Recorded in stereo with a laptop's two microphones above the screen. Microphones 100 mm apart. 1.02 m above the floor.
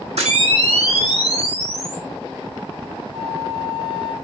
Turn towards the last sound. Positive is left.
turn(degrees=-60)  # may be behind; listen again after turning